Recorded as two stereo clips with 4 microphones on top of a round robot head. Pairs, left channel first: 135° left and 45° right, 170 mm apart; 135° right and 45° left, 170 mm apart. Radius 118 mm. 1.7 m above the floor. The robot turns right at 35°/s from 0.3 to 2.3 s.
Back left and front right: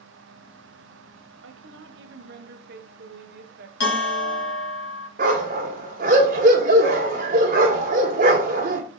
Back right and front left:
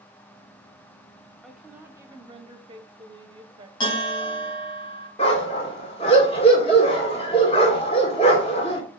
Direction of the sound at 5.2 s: 85° right.